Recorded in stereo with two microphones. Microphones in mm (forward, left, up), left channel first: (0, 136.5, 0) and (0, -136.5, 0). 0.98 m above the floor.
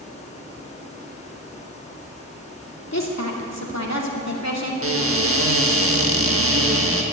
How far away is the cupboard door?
About 1.6 m.